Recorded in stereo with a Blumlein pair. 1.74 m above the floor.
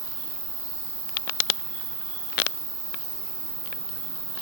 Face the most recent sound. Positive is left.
turn(degrees=-50)